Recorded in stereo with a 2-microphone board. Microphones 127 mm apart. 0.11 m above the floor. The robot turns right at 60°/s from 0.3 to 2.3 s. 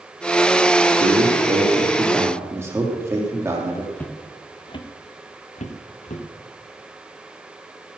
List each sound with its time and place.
1.0 s a man speaking: 100° right, 4.5 m; by 3.9 s 20° right, 4.5 m
4.0 s footsteps: 10° left (ahead or behind), 1.5 m; by 6.2 s 75° left (ahead or behind), 2.5 m